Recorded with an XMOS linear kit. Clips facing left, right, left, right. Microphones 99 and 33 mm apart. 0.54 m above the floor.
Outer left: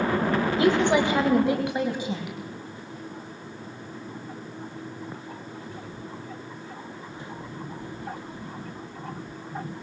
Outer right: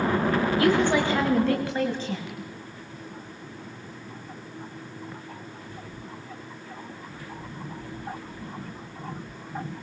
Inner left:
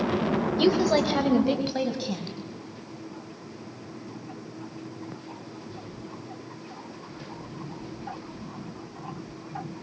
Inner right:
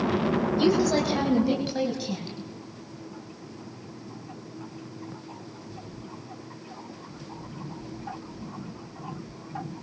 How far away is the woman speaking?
About 3 m.